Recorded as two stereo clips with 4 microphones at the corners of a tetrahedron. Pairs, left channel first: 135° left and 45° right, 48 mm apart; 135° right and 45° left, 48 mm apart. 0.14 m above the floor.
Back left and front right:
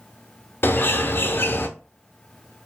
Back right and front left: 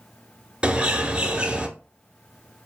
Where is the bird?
115° left, 0.9 m.